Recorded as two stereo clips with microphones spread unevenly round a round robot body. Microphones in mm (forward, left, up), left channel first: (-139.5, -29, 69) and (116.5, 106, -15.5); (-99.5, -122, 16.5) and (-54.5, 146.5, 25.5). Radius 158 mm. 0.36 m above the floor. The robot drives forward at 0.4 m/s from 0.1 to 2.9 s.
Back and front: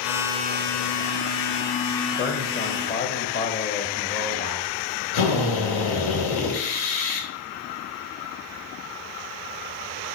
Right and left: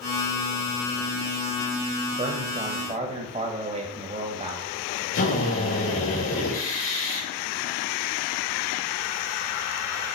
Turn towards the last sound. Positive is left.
turn(degrees=-140)